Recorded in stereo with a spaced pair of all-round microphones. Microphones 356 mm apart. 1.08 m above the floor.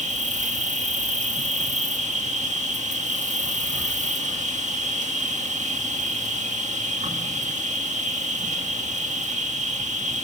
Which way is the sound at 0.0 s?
20° right (ahead or behind).